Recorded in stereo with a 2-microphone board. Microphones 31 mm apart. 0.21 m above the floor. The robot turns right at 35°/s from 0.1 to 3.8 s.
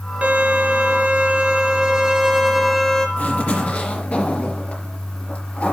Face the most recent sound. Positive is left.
turn(degrees=50)  # may be behind; listen again after turning